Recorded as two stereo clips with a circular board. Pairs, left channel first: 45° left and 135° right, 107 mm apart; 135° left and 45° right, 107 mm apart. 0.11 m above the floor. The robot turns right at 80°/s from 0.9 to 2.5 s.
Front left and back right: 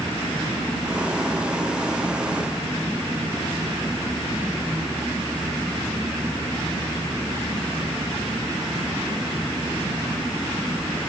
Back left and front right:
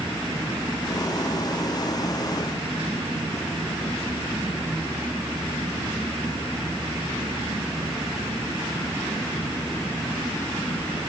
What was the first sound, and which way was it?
Only background noise.